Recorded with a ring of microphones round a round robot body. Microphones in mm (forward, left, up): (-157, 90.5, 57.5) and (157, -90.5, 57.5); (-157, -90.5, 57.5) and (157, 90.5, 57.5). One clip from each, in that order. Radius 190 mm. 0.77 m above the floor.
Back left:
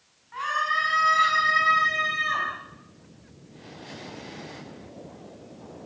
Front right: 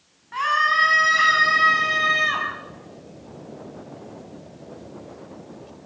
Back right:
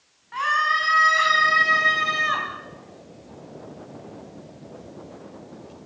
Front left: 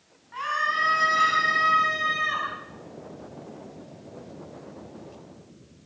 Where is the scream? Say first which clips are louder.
Front right 6 dB, back right 5 dB; 85° right, 6.5 m; by 2.5 s 95° right, 5 m.